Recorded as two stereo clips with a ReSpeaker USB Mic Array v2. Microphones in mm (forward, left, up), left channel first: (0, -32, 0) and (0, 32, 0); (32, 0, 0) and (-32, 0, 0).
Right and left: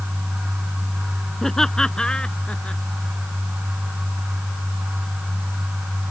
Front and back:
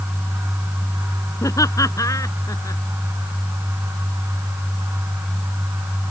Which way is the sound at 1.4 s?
5° right.